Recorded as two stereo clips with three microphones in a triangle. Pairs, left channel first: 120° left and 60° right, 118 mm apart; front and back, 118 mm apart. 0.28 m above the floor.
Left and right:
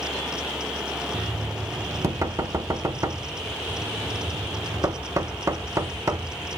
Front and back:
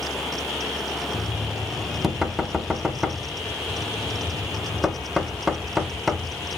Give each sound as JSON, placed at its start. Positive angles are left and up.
{"t": 1.1, "sound": "knocking", "azimuth_deg": -95, "distance_m": 0.7}